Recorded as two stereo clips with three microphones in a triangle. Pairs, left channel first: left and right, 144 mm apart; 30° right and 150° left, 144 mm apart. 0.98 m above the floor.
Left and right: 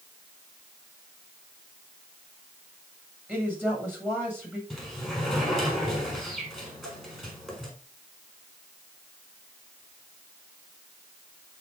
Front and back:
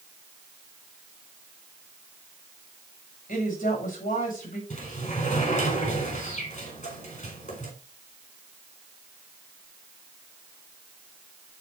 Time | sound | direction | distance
3.3 | a woman speaking | 10° right | 6.5 m
4.7 | a sliding door | straight ahead | 4.5 m